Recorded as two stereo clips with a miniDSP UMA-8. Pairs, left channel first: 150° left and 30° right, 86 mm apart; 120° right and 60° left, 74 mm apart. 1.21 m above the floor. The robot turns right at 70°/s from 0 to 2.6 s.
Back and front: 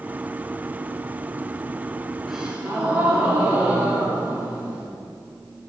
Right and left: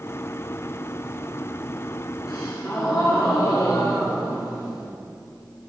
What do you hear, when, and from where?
2.3 s a gasp: 120° right, 4 m; by 4.9 s 100° right, 4 m